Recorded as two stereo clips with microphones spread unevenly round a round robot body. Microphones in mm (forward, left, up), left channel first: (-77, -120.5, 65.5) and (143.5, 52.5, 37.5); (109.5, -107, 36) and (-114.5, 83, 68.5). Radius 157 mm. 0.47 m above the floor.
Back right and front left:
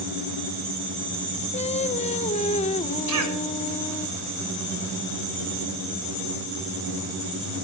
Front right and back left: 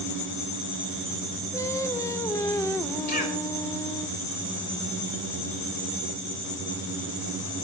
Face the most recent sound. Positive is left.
turn(degrees=20)